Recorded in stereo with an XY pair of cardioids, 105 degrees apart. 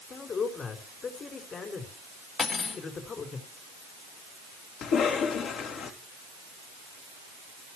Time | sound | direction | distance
0.1 | a man speaking | 45° left | 4.5 m
2.4 | cutlery clinking | 45° left | 3 m
4.8 | a cough | 70° left | 4 m